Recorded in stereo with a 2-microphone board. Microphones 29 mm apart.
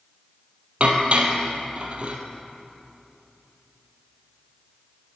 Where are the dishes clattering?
45° right (ahead or behind), 2 m.